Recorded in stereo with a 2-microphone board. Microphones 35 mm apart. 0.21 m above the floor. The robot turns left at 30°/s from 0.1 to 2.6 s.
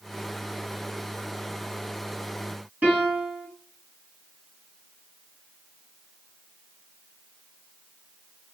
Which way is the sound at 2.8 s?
40° right (ahead or behind).